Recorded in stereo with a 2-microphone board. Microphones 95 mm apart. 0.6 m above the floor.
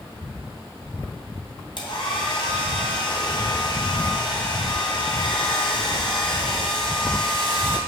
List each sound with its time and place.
1.8 s a hair dryer: 60° left (ahead or behind), 2.0 m